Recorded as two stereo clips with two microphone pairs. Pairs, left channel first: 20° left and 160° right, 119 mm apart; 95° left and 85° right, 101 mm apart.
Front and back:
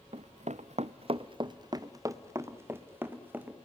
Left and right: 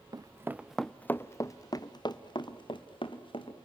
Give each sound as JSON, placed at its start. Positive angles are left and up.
{"t": 0.1, "sound": "running footsteps", "azimuth_deg": -135, "distance_m": 0.8}